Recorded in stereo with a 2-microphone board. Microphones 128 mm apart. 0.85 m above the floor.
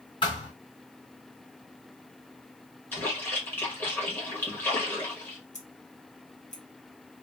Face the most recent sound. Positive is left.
turn(degrees=65)  # may be behind; listen again after turning